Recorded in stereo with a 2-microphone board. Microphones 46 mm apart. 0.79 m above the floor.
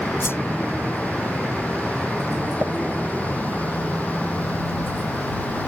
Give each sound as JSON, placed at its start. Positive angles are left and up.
{"t": 0.2, "sound": "a whoosh", "side_deg": 60}
{"t": 2.6, "sound": "tapping", "side_deg": -40}